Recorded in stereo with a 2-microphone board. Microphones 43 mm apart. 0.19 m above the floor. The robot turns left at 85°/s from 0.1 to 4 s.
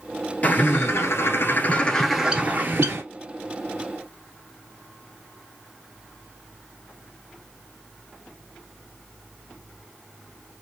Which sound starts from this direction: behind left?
A bird, at 0.4 s.